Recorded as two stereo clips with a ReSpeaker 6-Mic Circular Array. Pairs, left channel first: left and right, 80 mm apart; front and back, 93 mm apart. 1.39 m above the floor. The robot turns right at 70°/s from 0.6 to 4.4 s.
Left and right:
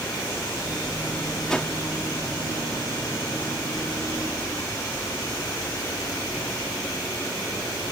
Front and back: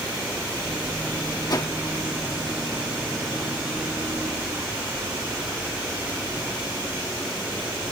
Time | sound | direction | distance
1.5 | a whoosh | 10° left | ?